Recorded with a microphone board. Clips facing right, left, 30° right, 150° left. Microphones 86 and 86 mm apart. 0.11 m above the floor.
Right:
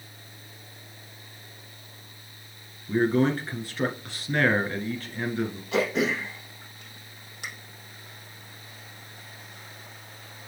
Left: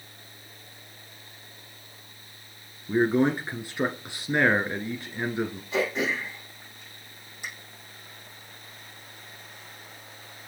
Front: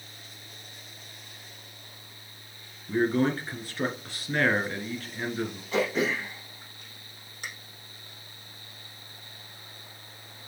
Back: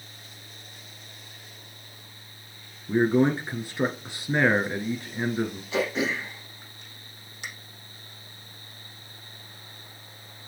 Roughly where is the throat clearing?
Right.